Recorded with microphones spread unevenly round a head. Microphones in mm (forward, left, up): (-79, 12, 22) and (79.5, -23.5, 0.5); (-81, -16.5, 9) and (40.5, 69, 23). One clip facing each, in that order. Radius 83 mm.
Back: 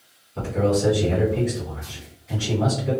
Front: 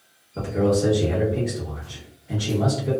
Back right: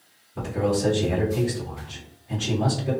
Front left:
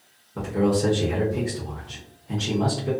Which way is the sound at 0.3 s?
35° left.